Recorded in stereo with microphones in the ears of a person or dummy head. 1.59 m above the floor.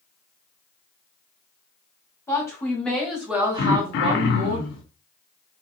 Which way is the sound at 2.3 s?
15° left (ahead or behind).